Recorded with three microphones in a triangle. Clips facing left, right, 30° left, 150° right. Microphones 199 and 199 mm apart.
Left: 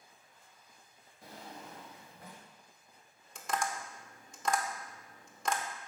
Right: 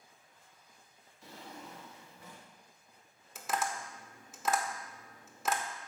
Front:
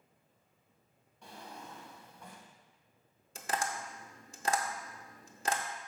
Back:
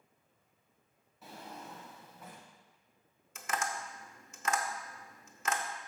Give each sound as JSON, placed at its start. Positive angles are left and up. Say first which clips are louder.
{"t": 1.2, "sound": "a drawer", "louder": "even, back 1 dB", "azimuth_deg": 125, "distance_m": 1.2}
{"t": 3.4, "sound": "tapping", "louder": "even, front 1 dB", "azimuth_deg": -5, "distance_m": 0.6}